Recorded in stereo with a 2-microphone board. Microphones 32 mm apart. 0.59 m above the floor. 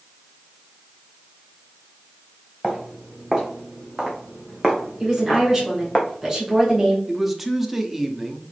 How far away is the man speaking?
About 0.7 m.